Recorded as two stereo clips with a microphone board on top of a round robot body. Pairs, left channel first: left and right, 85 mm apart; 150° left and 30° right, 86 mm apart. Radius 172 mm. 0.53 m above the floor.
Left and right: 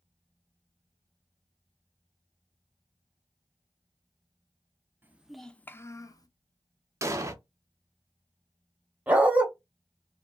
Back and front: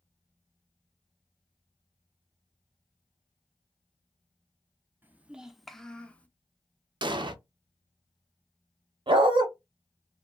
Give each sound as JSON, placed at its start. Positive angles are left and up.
{"t": 5.0, "sound": "a child speaking", "azimuth_deg": -65, "distance_m": 0.6}
{"t": 7.0, "sound": "an explosion", "azimuth_deg": -40, "distance_m": 0.6}
{"t": 9.1, "sound": "a dog barking", "azimuth_deg": -15, "distance_m": 0.8}